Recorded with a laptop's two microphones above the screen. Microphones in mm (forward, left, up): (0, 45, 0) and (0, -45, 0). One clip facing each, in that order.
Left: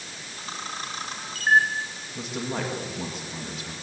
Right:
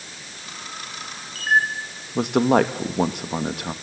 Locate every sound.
0.4 s a camera shutter: 35° left (ahead or behind), 3.5 m
2.1 s a man speaking: 65° right (ahead or behind), 1.6 m